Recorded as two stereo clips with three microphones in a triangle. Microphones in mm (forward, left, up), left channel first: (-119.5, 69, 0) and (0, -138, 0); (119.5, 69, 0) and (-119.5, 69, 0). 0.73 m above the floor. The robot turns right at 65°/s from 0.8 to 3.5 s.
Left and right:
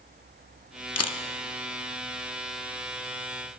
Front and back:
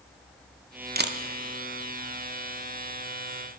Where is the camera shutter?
125° left, 0.6 m; by 1.2 s 140° left, 0.6 m.